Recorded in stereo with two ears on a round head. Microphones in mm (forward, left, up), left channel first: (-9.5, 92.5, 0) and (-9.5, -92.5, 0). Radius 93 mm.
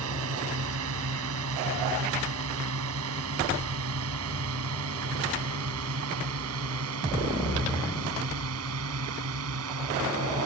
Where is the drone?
75° right (ahead or behind).